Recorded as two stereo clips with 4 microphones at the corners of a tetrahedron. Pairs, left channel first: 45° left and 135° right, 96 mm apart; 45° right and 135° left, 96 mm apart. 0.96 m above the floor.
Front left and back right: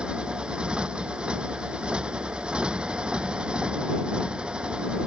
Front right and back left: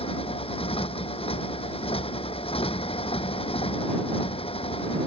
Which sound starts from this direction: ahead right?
A motorcycle, at 0.0 s.